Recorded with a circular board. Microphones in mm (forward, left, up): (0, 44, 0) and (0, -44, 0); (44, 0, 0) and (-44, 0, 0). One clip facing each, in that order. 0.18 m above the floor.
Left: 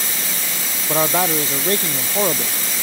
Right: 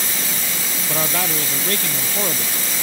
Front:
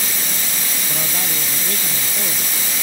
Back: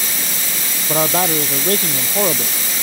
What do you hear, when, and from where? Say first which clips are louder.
0.9 s a man speaking: left 6 dB, back 14 dB; 155° left